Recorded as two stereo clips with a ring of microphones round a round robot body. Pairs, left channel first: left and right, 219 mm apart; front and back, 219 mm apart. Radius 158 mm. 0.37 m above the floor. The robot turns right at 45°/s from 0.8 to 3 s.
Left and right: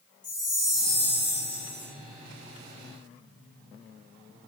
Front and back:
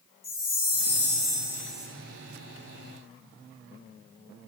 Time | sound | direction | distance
0.2 | a chime | 40° left | 1.3 m